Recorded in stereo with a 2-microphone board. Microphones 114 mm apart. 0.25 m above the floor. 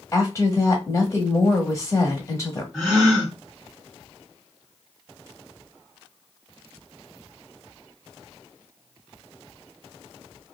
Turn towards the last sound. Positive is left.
turn(degrees=0)  # may be behind; listen again after turning